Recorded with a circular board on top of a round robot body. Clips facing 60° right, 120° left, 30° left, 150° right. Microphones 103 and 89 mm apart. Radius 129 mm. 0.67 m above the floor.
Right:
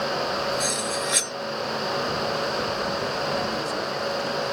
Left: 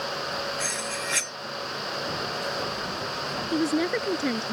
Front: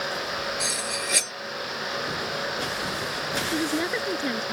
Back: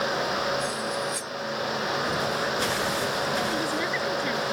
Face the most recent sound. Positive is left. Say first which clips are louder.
# left 3 dB, front 1 dB
turn(degrees=100)